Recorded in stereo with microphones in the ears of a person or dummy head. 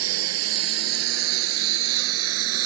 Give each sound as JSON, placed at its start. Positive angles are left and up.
{"t": 0.0, "sound": "a lawn mower", "side_deg": -85}